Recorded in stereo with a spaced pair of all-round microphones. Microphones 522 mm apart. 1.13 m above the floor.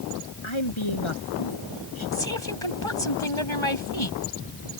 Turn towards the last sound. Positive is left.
turn(degrees=65)  # may be behind; listen again after turning